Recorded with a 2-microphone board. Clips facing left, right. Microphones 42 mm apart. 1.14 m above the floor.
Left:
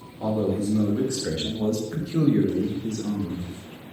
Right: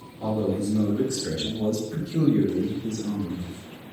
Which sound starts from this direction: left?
A man speaking, at 0.2 s.